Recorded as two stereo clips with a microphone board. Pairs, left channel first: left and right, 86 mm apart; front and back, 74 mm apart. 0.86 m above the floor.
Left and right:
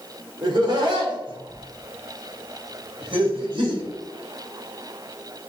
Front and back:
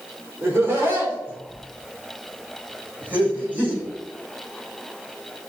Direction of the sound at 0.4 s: 125° right.